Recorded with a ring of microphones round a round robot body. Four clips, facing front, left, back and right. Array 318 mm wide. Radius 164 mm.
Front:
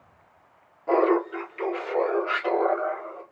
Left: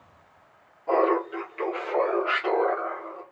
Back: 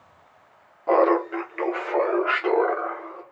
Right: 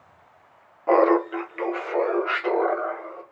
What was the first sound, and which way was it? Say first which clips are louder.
Laughter: right 4 dB, back 2 dB; 120° right.